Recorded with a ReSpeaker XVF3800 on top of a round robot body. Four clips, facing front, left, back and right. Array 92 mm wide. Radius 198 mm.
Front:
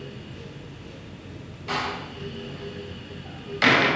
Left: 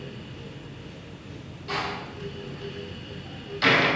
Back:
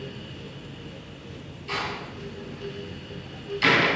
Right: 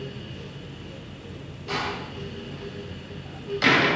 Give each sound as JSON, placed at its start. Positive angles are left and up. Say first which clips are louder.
{"t": 1.7, "sound": "a door slam", "louder": "right 1 dB, front 2 dB", "azimuth_deg": -10, "distance_m": 4.5}